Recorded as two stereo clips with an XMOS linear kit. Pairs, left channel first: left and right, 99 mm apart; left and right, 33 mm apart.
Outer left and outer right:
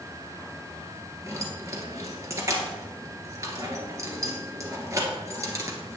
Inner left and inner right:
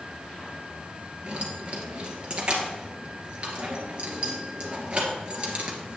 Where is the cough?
No cough in this recording.